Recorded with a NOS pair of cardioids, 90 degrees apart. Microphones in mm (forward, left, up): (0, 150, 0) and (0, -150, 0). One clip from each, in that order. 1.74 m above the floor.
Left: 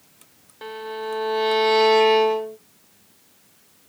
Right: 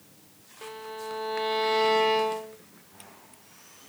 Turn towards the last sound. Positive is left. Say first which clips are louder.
# left 7 dB
turn(degrees=30)